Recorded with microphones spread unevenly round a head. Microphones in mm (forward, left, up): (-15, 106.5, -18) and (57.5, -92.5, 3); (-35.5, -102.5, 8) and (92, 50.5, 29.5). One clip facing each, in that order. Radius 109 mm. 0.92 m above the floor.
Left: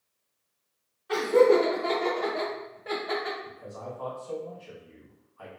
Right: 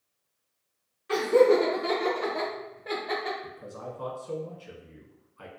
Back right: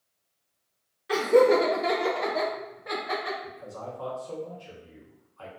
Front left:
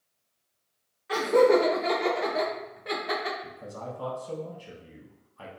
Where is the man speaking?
5° right, 0.8 m.